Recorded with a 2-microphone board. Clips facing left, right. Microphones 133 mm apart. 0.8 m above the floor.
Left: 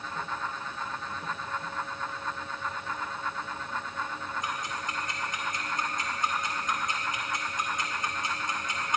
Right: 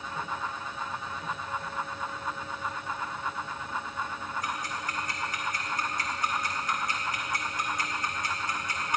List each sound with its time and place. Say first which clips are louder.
4.4 s ticking: even; 20° left (ahead or behind), 1.8 m